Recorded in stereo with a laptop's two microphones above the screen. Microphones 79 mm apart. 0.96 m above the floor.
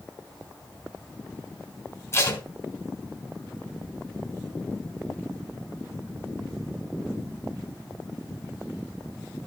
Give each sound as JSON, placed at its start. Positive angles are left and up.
{"t": 2.1, "sound": "tape being pulled", "side_deg": 35, "distance_m": 2.0}